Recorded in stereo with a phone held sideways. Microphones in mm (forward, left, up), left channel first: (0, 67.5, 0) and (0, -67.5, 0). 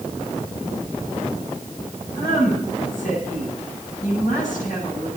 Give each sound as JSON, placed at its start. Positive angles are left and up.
{"t": 2.1, "sound": "a woman speaking", "side_deg": 80, "distance_m": 10.0}